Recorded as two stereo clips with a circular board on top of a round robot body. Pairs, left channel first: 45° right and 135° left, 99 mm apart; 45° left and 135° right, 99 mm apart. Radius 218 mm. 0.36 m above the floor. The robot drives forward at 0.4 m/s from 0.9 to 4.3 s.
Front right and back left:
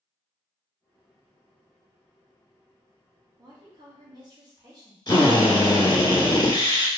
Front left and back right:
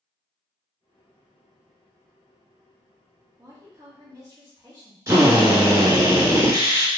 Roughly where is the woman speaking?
Behind.